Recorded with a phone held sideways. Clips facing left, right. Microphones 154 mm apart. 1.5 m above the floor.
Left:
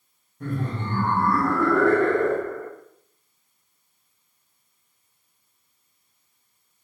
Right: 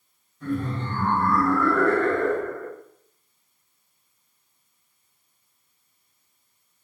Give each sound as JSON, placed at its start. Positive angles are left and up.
{"t": 0.4, "sound": "laughter", "side_deg": 60, "distance_m": 1.3}